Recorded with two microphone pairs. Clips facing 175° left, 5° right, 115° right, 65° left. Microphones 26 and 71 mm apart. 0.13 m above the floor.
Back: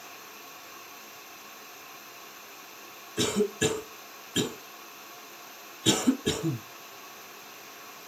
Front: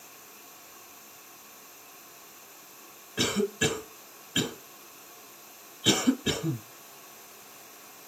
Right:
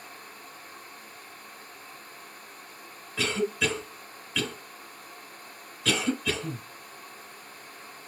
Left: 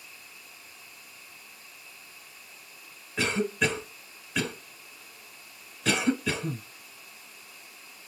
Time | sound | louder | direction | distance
3.2 | a cough | back 1 dB, left 1 dB | 30° left | 1.2 m